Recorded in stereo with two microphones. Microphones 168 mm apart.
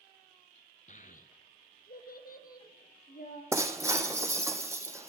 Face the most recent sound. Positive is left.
turn(degrees=-20)  # may be behind; listen again after turning